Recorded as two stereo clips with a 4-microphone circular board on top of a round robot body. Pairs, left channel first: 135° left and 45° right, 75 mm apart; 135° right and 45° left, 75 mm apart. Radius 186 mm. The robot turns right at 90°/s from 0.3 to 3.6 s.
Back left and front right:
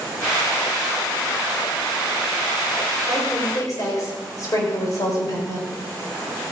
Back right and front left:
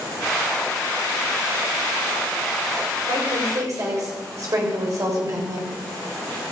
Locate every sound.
3.1 s a woman speaking: 45° left, 5 m; by 5.7 s 90° left, 5 m